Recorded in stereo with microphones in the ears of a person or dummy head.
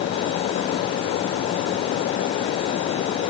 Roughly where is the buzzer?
No buzzer in this recording.